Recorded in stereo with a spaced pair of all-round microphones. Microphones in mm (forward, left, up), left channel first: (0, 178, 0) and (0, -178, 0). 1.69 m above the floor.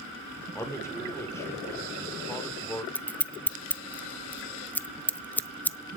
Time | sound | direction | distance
0.6 | a man speaking | 10° left (ahead or behind) | 5 m
3.0 | scissors | 5° left (ahead or behind) | 0.7 m